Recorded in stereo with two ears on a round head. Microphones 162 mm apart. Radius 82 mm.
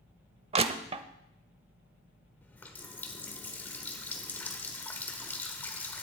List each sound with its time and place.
0.5 s crushing: 35° right (ahead or behind), 0.7 m
2.4 s a running tap: 10° left (ahead or behind), 1.3 m